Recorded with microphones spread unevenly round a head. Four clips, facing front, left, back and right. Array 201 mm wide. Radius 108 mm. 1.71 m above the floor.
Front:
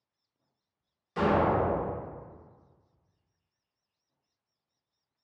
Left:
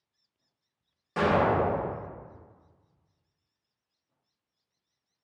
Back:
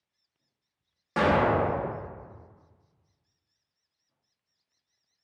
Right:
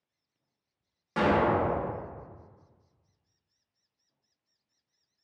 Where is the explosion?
175° right, 1.0 m.